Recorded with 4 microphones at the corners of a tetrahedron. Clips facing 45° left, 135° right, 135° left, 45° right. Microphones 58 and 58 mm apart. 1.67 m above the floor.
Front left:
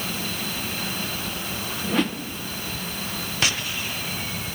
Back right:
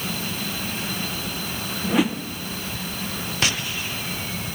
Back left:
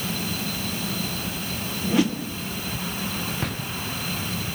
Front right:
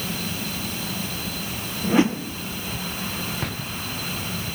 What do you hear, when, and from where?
1.8 s a whoosh: 60° right, 0.7 m